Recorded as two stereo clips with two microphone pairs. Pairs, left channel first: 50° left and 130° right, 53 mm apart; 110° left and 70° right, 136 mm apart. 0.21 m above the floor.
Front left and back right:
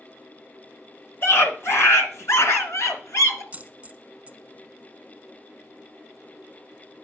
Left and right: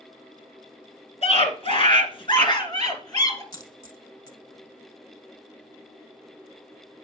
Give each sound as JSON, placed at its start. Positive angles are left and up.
{"t": 1.2, "sound": "a scream", "azimuth_deg": 75, "distance_m": 2.0}
{"t": 3.5, "sound": "a dropped coin", "azimuth_deg": 170, "distance_m": 0.9}